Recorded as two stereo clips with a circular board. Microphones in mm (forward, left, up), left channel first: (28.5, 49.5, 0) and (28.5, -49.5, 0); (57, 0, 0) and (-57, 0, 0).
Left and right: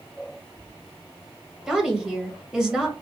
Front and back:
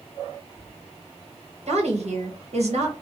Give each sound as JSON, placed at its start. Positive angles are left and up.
{"t": 1.7, "sound": "a woman speaking", "azimuth_deg": -170, "distance_m": 1.4}